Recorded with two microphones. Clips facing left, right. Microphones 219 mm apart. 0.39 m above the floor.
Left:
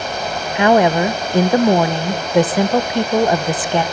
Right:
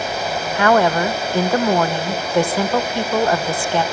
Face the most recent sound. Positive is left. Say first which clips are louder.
# left 3 dB
turn(degrees=20)  # may be behind; listen again after turning